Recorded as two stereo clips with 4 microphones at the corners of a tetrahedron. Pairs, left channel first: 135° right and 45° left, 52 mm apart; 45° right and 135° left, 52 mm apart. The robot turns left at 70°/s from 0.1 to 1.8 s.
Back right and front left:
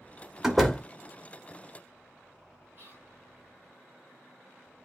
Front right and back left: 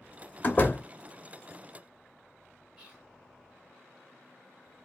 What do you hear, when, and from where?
0.4 s a door slam: 40° right, 0.7 m; by 0.8 s 65° right, 0.7 m
2.8 s whispering: 60° left, 1.5 m